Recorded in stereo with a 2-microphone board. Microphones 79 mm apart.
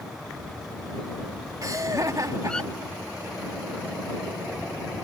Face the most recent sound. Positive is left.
turn(degrees=-45)  # may be behind; listen again after turning